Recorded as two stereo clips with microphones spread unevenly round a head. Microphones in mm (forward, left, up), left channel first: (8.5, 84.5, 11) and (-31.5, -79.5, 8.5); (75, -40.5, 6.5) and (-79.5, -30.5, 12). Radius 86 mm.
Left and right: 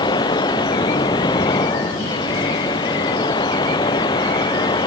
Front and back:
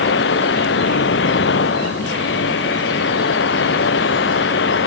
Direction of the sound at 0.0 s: 10° left.